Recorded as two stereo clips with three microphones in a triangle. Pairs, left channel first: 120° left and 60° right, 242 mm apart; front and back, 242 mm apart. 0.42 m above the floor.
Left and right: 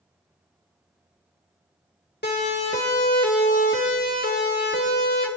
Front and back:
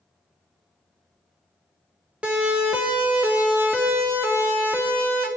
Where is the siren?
95° left, 2 m; by 5.3 s 100° left, 4 m.